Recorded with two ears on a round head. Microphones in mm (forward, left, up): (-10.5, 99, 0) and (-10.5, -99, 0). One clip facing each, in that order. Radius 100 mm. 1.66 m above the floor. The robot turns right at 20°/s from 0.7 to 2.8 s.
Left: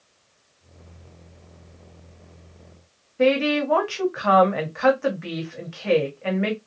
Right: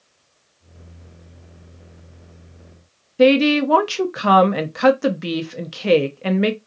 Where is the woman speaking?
50° right (ahead or behind), 0.9 m.